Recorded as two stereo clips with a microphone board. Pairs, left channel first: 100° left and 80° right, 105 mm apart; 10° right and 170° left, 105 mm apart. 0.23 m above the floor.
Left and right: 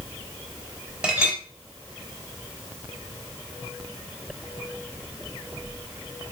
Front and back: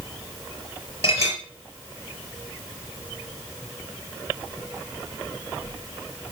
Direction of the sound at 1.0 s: Straight ahead.